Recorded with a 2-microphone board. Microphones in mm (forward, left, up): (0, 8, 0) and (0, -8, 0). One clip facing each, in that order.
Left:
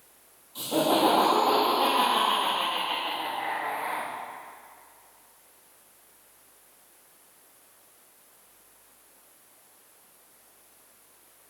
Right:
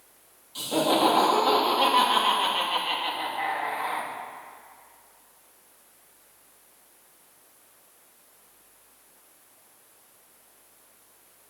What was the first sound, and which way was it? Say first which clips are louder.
Laughter: right 1 dB; 50° right (ahead or behind).